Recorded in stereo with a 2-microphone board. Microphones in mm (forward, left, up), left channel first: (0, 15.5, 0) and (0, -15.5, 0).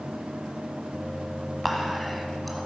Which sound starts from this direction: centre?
Whispering, at 1.6 s.